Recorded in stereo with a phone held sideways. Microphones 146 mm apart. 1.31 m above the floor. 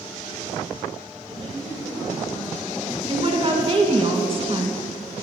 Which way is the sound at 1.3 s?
40° right (ahead or behind).